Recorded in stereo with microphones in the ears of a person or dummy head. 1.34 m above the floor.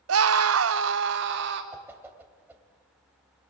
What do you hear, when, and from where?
0.1 s a scream: 80° right, 0.8 m; by 1.6 s 60° right (ahead or behind), 2.0 m
1.7 s a whoosh: 10° right (ahead or behind), 2 m